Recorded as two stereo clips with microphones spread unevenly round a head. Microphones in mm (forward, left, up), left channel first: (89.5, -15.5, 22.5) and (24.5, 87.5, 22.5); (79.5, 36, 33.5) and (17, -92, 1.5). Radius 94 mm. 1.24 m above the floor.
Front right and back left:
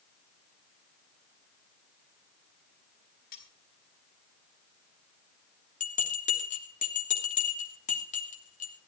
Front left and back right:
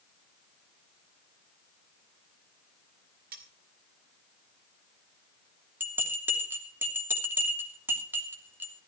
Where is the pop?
I don't hear a pop.